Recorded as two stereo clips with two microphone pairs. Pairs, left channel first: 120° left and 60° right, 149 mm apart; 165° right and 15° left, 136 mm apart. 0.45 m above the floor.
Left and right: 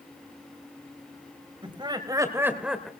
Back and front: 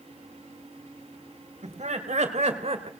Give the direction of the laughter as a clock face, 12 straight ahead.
12 o'clock.